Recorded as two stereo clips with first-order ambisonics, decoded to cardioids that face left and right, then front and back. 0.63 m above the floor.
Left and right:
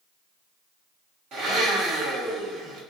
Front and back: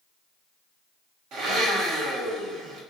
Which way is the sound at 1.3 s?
140° right.